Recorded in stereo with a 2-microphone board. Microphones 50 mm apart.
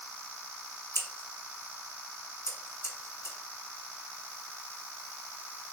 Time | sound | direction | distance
0.9 | scissors | 65° left (ahead or behind) | 1.0 m